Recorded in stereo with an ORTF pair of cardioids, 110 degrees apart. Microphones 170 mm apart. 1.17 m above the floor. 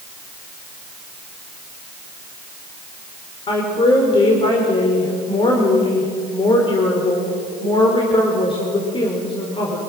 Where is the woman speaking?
30° left, 5 m.